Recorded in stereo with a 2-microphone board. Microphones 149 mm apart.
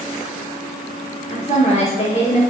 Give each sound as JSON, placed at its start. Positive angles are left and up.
{"t": 1.3, "sound": "a woman speaking", "side_deg": 45, "distance_m": 1.4}